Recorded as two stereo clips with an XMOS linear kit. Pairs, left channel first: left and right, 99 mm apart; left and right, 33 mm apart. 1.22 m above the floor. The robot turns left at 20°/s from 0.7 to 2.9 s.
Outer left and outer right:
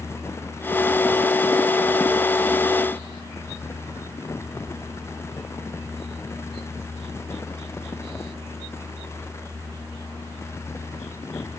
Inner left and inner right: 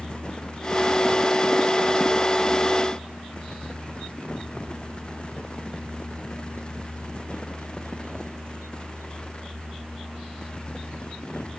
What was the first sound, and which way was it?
Only background noise.